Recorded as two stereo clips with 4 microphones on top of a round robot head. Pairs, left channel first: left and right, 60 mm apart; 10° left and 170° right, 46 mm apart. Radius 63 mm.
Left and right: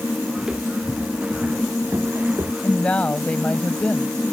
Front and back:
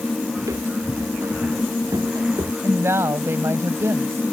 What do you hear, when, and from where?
0.4 s footsteps: 170° right; by 2.5 s 145° right
2.6 s a woman speaking: 165° left